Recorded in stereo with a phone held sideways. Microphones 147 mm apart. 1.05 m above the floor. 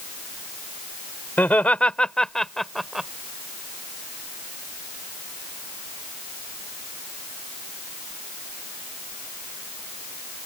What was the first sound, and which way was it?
Laughter, 10° left (ahead or behind).